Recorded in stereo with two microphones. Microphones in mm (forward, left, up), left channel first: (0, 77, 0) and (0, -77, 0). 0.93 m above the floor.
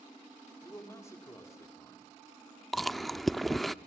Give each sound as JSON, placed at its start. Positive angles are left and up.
{"t": 0.6, "sound": "a man speaking", "side_deg": 20, "distance_m": 3.0}
{"t": 2.7, "sound": "chewing", "side_deg": 0, "distance_m": 0.5}